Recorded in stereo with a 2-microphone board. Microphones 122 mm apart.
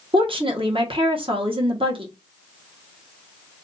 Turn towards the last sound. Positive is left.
turn(degrees=-45)  # may be behind; listen again after turning